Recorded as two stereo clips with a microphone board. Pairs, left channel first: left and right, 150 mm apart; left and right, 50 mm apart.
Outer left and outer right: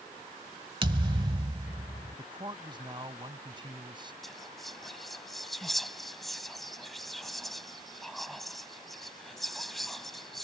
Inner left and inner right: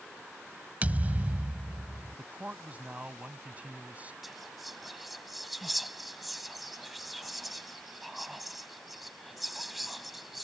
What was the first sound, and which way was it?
A thud, 30° right (ahead or behind).